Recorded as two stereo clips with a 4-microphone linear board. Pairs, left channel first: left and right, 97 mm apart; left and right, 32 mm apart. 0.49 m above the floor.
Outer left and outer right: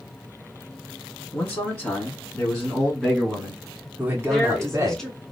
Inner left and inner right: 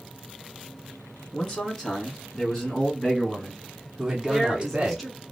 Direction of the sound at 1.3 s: 20° left (ahead or behind).